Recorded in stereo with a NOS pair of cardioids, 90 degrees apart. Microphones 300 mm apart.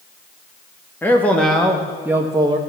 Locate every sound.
1.0 s a man speaking: 10° left, 1.9 m; by 2.6 s 15° right, 1.3 m